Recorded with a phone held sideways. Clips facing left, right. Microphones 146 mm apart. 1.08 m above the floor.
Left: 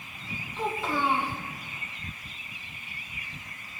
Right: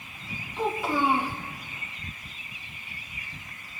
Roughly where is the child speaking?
Centre.